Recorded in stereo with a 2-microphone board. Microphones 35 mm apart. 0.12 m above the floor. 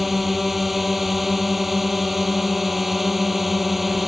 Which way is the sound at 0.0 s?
5° right (ahead or behind).